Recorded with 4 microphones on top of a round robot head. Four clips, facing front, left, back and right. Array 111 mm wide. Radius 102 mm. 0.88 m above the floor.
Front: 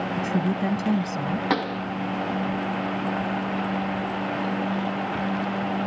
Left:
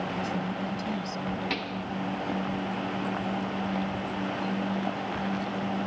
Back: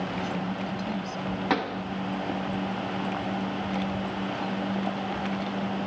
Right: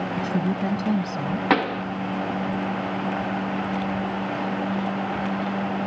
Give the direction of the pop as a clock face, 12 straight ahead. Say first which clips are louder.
Right 11 dB, front 1 dB; 3 o'clock.